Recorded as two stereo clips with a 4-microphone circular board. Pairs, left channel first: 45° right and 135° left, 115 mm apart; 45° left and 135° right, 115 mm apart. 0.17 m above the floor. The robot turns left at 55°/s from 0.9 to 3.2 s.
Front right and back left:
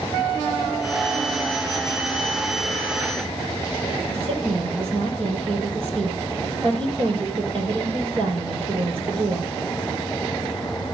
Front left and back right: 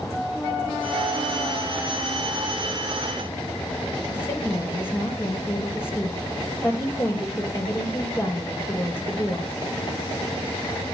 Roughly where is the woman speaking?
Left.